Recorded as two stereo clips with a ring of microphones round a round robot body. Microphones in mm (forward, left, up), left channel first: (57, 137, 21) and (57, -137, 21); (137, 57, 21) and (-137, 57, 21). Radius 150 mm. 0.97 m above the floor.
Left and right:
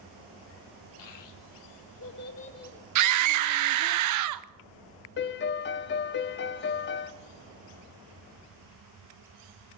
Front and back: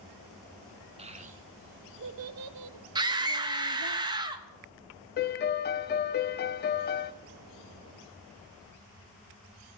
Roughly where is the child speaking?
Left.